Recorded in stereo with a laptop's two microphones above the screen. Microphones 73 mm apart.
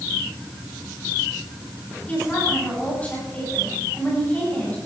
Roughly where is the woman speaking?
Left.